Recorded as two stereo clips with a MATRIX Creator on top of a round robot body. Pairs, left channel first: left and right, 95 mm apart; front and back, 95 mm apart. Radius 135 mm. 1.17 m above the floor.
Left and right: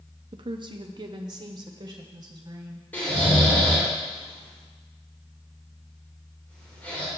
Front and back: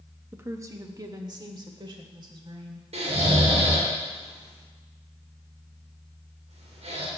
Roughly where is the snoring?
Behind.